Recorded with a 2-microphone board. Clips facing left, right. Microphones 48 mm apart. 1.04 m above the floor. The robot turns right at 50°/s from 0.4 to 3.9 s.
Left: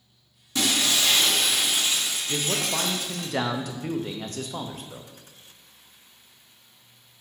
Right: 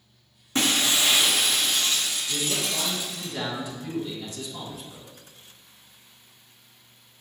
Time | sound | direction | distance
0.6 | breaking glass | 45° right | 0.6 m
2.3 | a man speaking | 40° left | 0.5 m